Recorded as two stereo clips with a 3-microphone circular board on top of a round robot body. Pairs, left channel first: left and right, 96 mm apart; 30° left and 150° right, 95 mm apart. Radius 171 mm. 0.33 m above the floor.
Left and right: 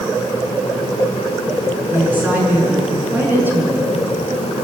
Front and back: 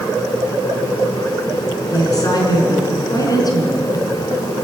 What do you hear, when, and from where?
1.9 s a woman speaking: 20° right, 5.5 m